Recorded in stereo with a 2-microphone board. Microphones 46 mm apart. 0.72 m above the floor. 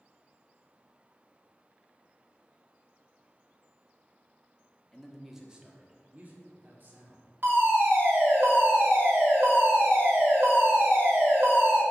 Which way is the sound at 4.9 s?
10° left (ahead or behind).